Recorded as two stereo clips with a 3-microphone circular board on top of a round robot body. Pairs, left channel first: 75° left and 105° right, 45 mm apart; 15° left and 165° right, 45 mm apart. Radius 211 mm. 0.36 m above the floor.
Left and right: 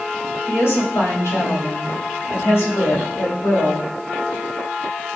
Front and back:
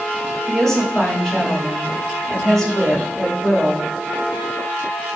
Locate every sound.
0.5 s a woman speaking: 95° left, 3.5 m